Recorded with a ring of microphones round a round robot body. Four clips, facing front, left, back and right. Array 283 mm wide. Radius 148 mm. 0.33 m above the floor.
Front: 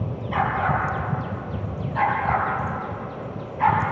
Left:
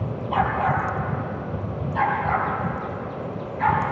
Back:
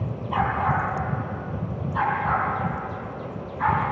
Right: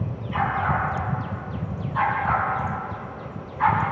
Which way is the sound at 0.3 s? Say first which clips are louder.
Left 2 dB, front 1 dB; 65° left.